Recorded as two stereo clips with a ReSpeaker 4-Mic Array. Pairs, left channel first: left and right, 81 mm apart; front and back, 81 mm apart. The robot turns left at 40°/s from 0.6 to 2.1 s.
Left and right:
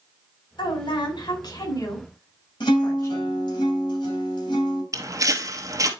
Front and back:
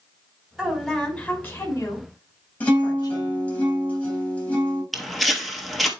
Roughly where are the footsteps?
Right.